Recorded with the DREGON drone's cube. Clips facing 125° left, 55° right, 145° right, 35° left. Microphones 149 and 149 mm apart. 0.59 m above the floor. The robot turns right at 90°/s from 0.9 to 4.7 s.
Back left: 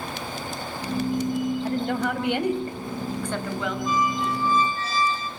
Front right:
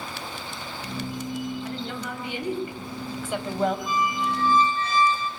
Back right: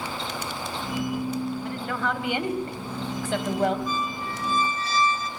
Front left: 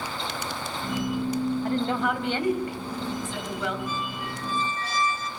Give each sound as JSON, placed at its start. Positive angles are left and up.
{"t": 1.6, "sound": "a woman speaking", "azimuth_deg": 75, "distance_m": 3.0}
{"t": 3.9, "sound": "a squeak", "azimuth_deg": -5, "distance_m": 1.9}